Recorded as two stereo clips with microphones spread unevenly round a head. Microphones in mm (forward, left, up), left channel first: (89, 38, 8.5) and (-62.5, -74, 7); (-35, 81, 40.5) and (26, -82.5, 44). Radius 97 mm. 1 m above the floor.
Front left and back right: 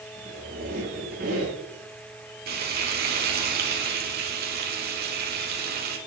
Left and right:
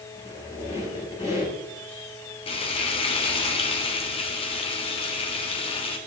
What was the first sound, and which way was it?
A squeak, 165° left.